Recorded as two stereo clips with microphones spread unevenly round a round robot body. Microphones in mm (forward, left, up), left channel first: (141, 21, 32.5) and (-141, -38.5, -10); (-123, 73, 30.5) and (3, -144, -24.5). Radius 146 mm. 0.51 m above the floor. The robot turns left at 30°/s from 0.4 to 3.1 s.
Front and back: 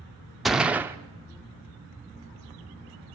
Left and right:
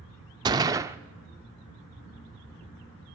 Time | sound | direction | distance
0.5 | a gunshot | 95° right | 0.6 m